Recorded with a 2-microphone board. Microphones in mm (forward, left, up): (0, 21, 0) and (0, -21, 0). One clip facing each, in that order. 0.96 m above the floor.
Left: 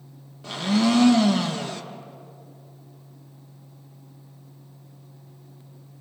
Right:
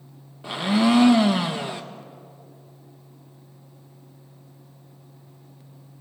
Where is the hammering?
I don't hear hammering.